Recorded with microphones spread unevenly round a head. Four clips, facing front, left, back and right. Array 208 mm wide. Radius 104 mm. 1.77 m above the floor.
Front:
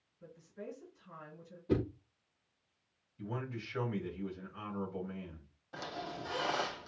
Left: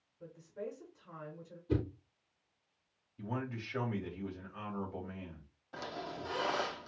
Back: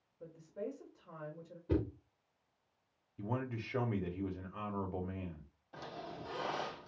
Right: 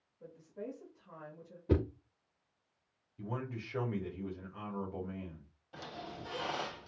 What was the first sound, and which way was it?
A woman speaking, 165° left.